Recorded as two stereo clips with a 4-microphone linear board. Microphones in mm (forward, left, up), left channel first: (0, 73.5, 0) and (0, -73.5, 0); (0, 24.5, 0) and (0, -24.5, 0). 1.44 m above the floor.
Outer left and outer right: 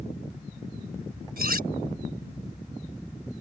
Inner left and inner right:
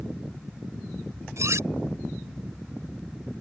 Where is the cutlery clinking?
80° right.